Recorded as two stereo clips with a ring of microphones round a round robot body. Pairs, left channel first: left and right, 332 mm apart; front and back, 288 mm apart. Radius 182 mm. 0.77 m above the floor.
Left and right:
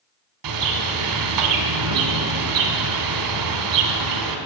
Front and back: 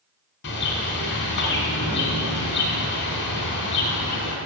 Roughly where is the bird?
Ahead right.